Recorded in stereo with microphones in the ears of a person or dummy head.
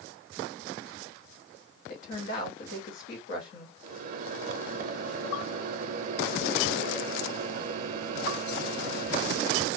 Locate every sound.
1.9 s a woman speaking: 60° left (ahead or behind), 1.4 m
3.8 s a microwave: 45° right (ahead or behind), 0.5 m